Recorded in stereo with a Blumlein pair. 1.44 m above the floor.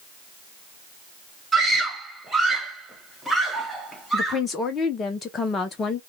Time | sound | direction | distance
1.5 | a scream | 10° right | 1.4 m
4.1 | a woman speaking | 20° left | 0.6 m